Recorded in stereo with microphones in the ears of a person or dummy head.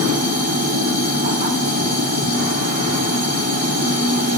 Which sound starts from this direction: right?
A machine running, at 0.0 s.